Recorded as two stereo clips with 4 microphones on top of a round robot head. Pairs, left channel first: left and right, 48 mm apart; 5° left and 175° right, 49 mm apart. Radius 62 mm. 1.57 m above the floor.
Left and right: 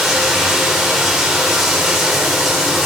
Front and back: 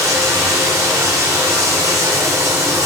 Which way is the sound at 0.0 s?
175° right.